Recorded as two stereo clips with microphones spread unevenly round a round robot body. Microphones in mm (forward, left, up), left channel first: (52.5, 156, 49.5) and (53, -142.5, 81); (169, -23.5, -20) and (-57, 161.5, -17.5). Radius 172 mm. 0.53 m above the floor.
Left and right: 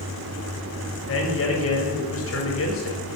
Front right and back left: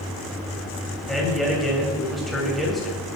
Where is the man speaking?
50° left, 3 m.